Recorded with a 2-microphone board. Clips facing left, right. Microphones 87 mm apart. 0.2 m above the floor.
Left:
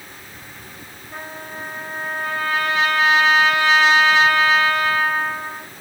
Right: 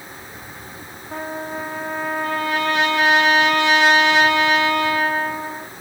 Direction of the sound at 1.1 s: 70° right (ahead or behind).